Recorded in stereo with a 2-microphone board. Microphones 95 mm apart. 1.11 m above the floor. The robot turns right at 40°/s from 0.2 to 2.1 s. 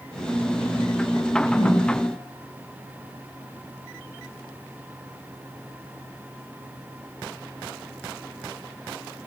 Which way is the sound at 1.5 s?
60° left (ahead or behind).